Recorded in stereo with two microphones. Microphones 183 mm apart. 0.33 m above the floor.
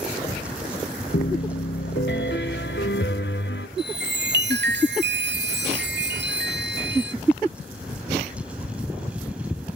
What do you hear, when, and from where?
1.1 s a piano: 80° left, 0.8 m
3.8 s a chime: 70° right (ahead or behind), 0.8 m